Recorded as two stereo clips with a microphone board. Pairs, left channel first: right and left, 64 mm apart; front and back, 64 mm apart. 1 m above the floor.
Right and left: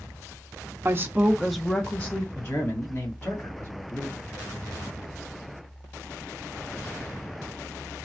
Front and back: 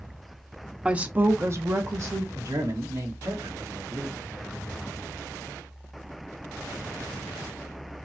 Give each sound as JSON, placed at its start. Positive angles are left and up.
{"t": 0.8, "sound": "a woman speaking", "azimuth_deg": 110, "distance_m": 0.7}
{"t": 2.4, "sound": "a man speaking", "azimuth_deg": -145, "distance_m": 1.7}